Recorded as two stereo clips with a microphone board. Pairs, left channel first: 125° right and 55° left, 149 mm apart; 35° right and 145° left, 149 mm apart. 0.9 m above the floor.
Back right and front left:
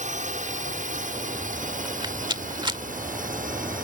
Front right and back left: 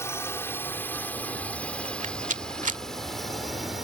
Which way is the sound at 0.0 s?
35° left.